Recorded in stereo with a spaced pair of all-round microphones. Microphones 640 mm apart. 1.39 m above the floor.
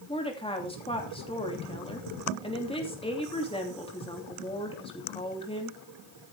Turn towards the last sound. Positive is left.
turn(degrees=10)  # may be behind; listen again after turning